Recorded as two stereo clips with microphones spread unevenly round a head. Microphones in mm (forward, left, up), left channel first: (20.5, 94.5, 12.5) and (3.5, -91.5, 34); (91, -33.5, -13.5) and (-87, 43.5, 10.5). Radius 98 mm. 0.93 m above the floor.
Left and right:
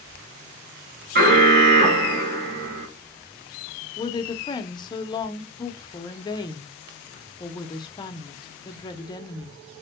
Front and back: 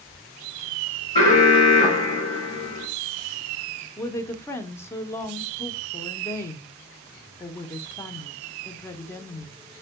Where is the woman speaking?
40° left, 0.6 m.